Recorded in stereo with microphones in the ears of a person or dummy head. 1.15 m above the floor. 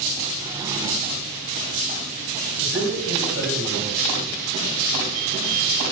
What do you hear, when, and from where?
0.4 s a drawer: 20° right (ahead or behind), 1.0 m
2.6 s a man speaking: 75° right (ahead or behind), 6 m